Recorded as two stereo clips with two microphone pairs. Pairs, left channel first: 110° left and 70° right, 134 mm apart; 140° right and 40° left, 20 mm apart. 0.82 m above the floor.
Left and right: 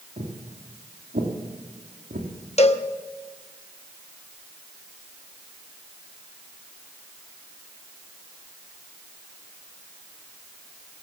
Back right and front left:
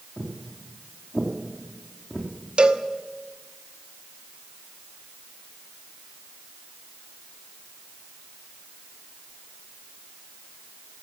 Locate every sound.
0.2 s footsteps: 100° right, 4 m; by 2.3 s 85° right, 3 m
2.6 s a cowbell: 75° left, 0.8 m